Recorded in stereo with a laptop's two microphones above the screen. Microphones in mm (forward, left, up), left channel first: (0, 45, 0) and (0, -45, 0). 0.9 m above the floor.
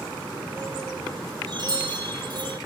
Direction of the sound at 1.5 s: 55° right (ahead or behind).